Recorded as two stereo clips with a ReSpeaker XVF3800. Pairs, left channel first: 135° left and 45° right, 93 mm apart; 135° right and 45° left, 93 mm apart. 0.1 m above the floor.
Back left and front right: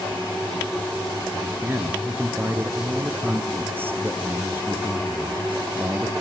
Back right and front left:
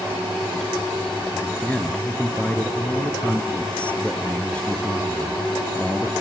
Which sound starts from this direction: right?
A man speaking, at 1.3 s.